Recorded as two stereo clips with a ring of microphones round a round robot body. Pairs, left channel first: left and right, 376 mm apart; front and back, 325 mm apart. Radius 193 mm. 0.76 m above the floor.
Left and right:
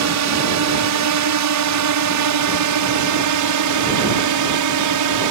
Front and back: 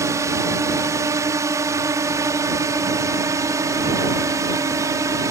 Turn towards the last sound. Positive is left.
turn(degrees=-100)